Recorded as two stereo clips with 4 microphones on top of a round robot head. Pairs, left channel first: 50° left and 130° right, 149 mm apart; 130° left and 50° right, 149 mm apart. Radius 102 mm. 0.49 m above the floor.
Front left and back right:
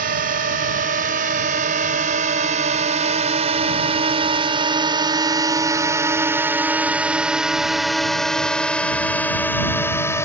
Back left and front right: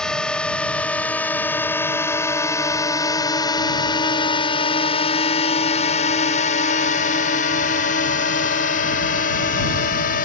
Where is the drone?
145° right; by 10.3 s 120° left.